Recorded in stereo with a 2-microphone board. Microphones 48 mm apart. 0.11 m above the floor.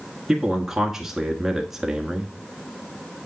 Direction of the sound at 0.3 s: 5° right (ahead or behind).